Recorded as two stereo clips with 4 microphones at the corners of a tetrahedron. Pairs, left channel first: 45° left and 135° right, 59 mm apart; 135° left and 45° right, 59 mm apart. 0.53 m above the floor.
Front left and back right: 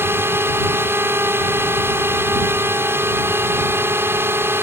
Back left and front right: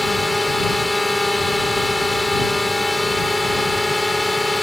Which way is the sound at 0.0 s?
135° right.